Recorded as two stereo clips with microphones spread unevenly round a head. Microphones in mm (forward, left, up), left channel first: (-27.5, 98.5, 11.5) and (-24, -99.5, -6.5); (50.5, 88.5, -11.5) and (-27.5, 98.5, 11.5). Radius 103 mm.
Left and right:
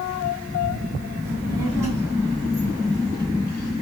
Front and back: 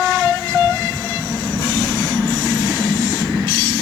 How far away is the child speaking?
About 9.5 m.